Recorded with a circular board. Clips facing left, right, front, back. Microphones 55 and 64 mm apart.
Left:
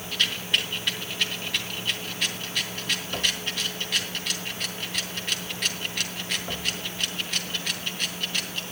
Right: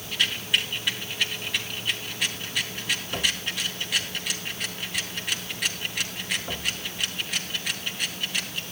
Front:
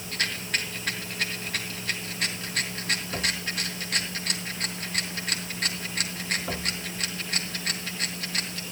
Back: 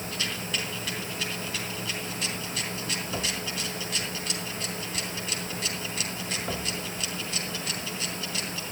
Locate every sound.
0.1 s a rattle: 10° right, 2.5 m